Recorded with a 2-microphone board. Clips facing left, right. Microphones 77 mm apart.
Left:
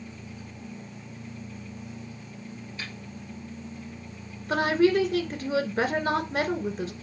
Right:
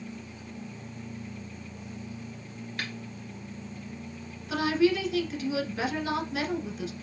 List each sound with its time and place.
2.8 s a snare drum: 65° right (ahead or behind), 1.4 m
4.5 s a woman speaking: 45° left (ahead or behind), 1.9 m